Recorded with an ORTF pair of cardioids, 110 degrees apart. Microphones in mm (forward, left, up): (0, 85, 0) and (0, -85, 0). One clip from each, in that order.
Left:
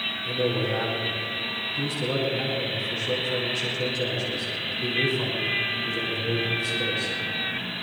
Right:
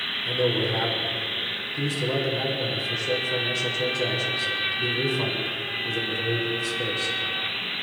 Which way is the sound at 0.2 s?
15° right.